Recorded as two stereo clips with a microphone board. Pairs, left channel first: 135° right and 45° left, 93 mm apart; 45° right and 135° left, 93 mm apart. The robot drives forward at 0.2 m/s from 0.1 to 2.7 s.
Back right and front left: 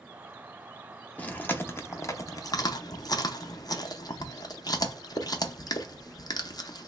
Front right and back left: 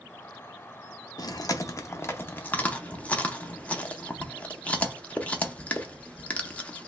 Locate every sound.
1.2 s chewing: 65° right, 0.5 m; by 6.9 s 115° right, 0.5 m